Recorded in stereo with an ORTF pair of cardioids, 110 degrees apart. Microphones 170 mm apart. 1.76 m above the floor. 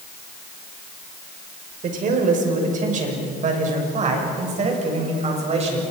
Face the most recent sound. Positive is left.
turn(degrees=-40)